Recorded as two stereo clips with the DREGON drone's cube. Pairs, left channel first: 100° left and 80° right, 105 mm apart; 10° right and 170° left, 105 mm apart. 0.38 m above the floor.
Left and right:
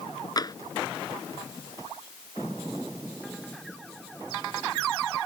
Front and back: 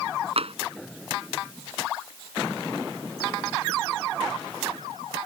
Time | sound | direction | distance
0.4 | tapping | 150° left | ?